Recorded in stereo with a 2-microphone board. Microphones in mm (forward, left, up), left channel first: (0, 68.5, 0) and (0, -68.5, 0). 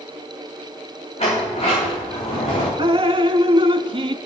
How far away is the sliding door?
About 5 m.